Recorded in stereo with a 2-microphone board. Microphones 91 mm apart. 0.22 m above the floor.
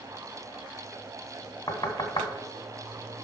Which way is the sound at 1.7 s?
50° left (ahead or behind).